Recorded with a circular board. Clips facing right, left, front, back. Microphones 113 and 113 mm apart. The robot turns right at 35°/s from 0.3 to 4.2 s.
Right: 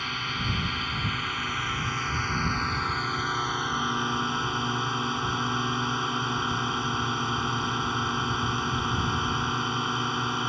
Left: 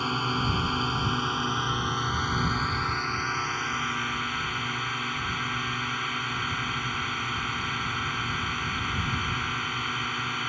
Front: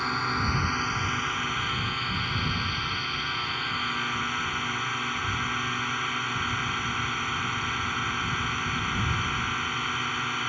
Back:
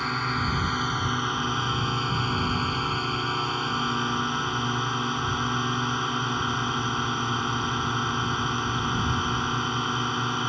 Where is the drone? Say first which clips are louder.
Left 5 dB, back 1 dB; 90° left; by 10.5 s 130° right.